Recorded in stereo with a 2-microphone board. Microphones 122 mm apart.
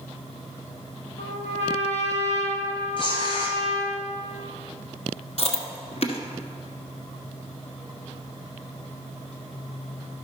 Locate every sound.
1.2 s a trumpet: 65° left (ahead or behind), 1.6 m
3.0 s tearing paper: 45° left (ahead or behind), 1.9 m
5.4 s chewing: 60° left (ahead or behind), 1.1 m